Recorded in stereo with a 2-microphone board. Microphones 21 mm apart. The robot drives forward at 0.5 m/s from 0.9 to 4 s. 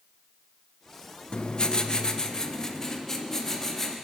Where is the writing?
45° left (ahead or behind), 0.6 m; by 3.9 s 15° left (ahead or behind), 1.6 m.